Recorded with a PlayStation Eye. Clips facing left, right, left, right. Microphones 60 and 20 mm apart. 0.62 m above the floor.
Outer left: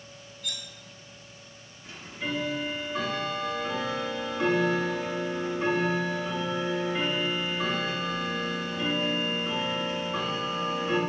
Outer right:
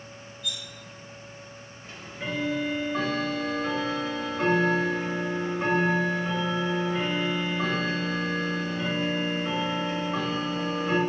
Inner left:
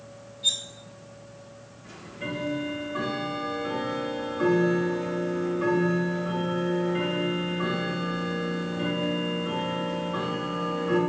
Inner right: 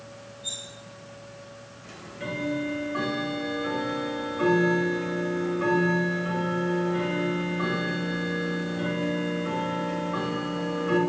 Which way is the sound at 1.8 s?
45° right (ahead or behind).